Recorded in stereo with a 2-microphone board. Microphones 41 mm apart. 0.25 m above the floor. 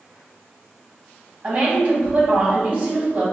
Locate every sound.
1.4 s a woman speaking: 40° right (ahead or behind), 1.4 m